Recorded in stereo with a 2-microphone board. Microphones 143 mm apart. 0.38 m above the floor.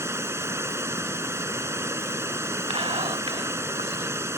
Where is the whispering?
40° right (ahead or behind).